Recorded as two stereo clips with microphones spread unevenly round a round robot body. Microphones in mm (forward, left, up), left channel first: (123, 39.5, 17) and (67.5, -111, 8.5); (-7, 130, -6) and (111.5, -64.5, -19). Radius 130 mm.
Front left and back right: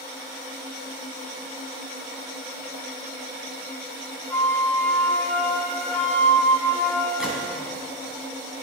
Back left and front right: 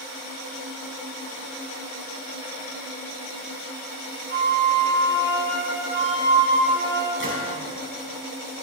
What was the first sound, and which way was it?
A flute, 10° right.